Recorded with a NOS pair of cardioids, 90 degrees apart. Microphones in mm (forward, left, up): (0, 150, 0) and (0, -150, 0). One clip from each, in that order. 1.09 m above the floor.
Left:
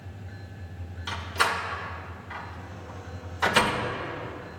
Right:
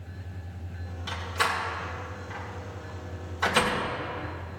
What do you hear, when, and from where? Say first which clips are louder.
1.1 s a door slam: left 2 dB; 20° left, 2 m